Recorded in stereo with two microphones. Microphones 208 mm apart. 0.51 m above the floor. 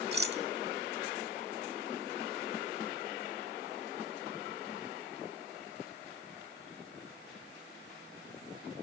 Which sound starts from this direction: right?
A rattle, at 0.1 s.